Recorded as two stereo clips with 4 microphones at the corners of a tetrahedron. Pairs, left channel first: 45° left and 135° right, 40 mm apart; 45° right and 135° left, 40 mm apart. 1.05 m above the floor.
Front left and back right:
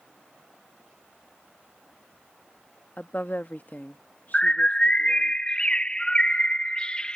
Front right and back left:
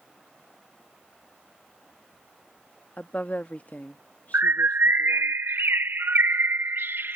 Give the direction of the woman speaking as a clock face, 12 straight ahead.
12 o'clock.